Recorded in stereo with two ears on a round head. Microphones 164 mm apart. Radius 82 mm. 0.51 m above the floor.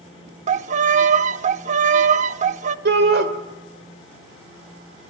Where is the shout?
60° right (ahead or behind), 1.9 m.